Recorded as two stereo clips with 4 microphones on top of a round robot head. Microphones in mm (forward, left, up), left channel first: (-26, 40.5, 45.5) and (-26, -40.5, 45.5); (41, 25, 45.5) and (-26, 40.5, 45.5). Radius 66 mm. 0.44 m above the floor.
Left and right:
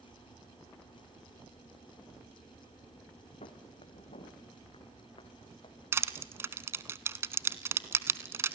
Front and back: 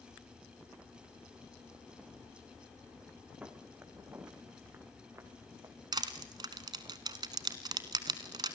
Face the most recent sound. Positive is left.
turn(degrees=-150)